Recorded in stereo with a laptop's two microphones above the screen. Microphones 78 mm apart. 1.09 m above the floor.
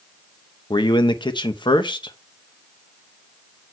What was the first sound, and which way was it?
A man speaking, 80° left.